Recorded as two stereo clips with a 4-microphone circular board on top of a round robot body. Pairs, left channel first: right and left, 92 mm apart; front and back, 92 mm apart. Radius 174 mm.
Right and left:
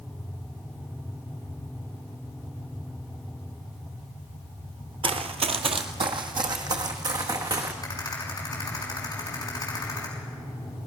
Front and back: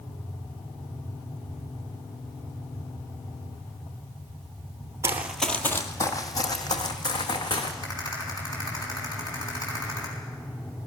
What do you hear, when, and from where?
5.0 s running footsteps: 120° left, 0.6 m; by 7.7 s 40° left, 3 m
7.8 s a rattle: 45° right, 6.5 m